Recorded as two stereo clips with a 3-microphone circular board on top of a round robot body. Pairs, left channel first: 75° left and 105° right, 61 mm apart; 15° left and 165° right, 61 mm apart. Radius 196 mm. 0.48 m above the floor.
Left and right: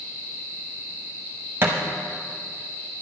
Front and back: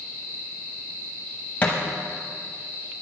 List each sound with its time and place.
1.6 s a thud: 50° right, 0.8 m